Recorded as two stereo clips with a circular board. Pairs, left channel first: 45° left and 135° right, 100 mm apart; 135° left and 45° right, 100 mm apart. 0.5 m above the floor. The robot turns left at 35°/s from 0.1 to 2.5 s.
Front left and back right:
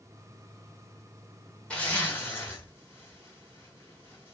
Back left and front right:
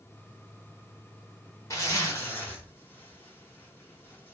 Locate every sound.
1.7 s a zipper: 115° left, 1.0 m; by 4.3 s 85° left, 1.0 m